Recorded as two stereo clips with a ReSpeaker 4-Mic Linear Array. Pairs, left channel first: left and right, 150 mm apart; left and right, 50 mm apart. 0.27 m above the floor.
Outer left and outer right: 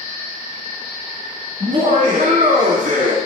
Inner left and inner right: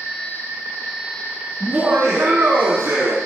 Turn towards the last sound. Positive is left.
turn(degrees=-60)  # may be behind; listen again after turning